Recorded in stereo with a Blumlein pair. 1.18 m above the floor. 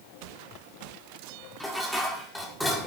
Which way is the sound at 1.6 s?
5° left.